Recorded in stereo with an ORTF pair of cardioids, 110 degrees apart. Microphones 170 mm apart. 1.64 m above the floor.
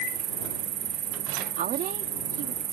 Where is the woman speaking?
60° right.